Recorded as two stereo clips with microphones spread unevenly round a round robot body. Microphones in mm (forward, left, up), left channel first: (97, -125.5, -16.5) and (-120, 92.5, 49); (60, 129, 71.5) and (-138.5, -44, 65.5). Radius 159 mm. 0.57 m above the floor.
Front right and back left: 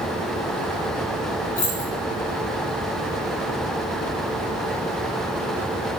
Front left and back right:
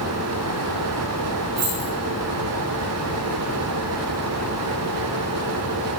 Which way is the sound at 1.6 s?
110° right.